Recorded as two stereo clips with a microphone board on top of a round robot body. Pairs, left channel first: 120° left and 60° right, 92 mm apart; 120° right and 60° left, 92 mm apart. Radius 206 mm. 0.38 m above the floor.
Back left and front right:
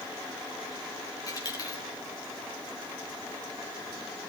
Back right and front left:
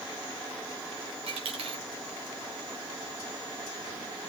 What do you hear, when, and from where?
1.3 s a dropped coin: 70° left, 3.5 m